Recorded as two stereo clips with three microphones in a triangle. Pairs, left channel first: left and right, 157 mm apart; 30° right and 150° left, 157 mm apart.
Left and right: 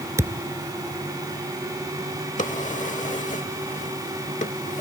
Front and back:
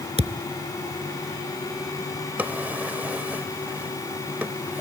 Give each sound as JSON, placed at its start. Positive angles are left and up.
{"t": 0.2, "sound": "a thud", "azimuth_deg": -160}
{"t": 2.4, "sound": "a drawer", "azimuth_deg": 75}